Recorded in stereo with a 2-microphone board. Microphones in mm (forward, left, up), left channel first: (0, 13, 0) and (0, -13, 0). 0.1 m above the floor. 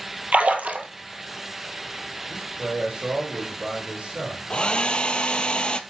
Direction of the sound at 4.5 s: 35° left (ahead or behind).